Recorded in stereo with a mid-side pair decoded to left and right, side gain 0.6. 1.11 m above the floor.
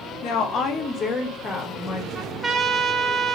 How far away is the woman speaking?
About 0.9 m.